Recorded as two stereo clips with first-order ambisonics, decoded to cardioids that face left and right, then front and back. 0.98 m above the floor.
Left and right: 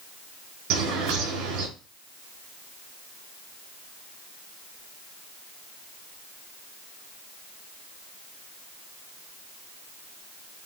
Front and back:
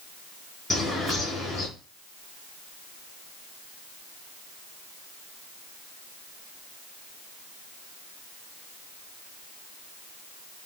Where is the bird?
85° right, 5.5 m.